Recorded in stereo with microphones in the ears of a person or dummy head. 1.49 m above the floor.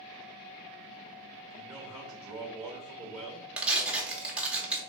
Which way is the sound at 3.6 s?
5° right (ahead or behind).